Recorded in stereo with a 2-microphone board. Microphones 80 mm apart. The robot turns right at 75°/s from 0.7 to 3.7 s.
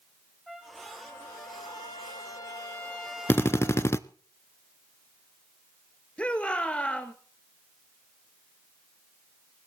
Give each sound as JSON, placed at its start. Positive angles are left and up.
{"t": 0.5, "sound": "a trumpet", "azimuth_deg": 0, "distance_m": 4.5}
{"t": 3.3, "sound": "a drill", "azimuth_deg": 55, "distance_m": 0.7}
{"t": 6.2, "sound": "a shout", "side_deg": 15, "distance_m": 1.9}